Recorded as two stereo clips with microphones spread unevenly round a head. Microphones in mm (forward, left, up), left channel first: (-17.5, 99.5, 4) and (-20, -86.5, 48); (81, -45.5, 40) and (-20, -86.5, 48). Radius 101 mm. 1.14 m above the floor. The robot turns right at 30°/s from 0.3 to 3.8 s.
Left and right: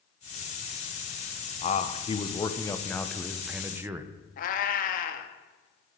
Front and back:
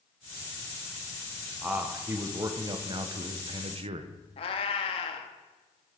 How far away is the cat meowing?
About 0.6 m.